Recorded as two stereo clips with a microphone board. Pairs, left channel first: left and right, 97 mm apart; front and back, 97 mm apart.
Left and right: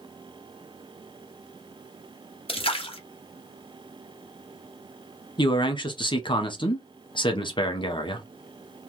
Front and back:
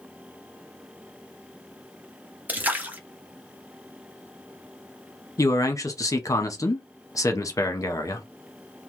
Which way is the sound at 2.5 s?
110° left.